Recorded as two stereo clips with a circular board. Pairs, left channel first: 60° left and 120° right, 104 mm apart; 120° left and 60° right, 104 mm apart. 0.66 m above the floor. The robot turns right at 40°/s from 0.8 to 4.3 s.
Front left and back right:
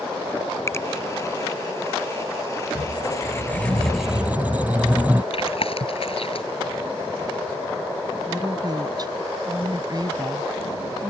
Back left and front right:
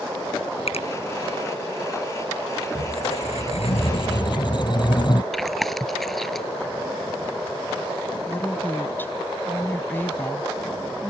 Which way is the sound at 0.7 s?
125° left.